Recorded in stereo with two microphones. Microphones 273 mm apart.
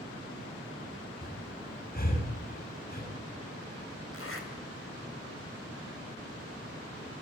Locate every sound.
1.2 s breathing: 35° left (ahead or behind), 7 m
4.1 s a zipper: 55° left (ahead or behind), 3.5 m